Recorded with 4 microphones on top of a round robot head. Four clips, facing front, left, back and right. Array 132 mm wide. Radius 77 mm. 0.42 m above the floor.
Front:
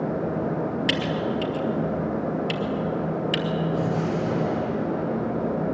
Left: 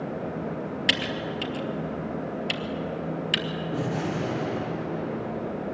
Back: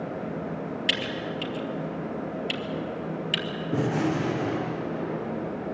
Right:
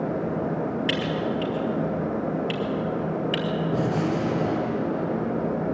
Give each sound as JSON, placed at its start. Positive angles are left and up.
{"t": 0.9, "sound": "typing on a keyboard", "azimuth_deg": 90, "distance_m": 2.0}
{"t": 3.7, "sound": "a gunshot", "azimuth_deg": -150, "distance_m": 5.5}